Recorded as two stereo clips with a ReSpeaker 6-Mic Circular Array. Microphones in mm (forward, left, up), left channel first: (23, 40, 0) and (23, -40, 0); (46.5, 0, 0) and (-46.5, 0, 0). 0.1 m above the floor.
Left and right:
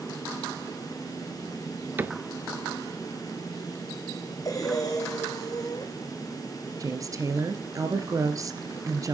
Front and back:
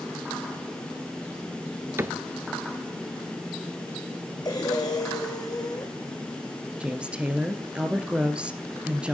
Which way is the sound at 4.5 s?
45° left.